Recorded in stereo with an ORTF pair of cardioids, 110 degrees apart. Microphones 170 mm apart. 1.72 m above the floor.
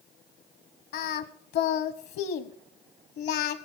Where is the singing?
65° left, 1.2 m.